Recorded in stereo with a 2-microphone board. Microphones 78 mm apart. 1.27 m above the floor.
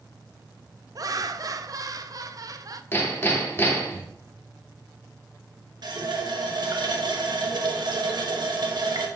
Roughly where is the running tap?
Right.